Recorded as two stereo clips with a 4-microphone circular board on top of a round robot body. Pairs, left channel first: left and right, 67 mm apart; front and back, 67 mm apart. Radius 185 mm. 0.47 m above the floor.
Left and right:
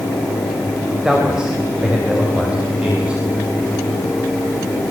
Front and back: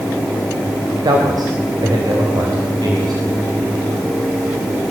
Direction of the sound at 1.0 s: 170° right.